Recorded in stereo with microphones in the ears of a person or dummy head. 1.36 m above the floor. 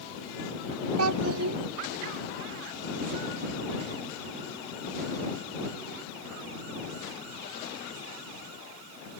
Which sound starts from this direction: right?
A child speaking, at 1.0 s.